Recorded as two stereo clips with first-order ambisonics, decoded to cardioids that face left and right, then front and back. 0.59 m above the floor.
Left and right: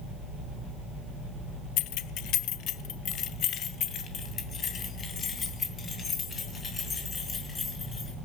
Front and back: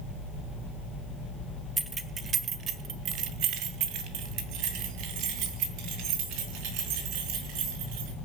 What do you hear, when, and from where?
1.8 s keys jangling: 105° left, 1.0 m; by 8.1 s 160° left, 5 m